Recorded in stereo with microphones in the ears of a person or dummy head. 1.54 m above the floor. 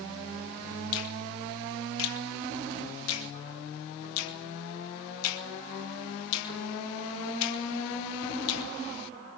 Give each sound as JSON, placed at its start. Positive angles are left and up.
{"t": 0.9, "sound": "a finger snap", "side_deg": 85, "distance_m": 2.0}